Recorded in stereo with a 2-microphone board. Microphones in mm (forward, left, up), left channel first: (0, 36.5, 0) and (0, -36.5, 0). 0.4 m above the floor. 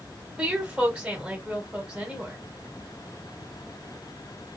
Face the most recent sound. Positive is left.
turn(degrees=-10)  # may be behind; listen again after turning